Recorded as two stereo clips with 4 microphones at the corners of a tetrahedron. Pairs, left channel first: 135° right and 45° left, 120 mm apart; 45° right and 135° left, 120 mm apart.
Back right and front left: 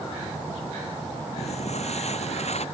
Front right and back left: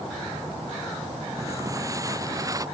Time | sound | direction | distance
1.4 | footsteps | 160° right | ?